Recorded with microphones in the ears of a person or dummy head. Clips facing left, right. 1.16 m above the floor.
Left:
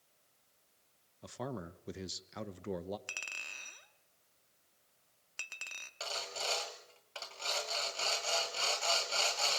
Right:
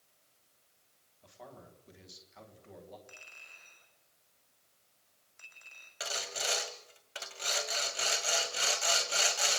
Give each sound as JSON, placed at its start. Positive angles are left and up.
{"t": 1.2, "sound": "a man speaking", "side_deg": 65, "distance_m": 1.2}
{"t": 3.1, "sound": "a clink", "side_deg": 85, "distance_m": 1.8}
{"t": 6.0, "sound": "sawing", "side_deg": -15, "distance_m": 1.9}